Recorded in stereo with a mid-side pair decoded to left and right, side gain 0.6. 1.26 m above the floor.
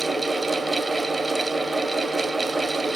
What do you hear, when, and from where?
0.0 s a fan: 10° right, 0.7 m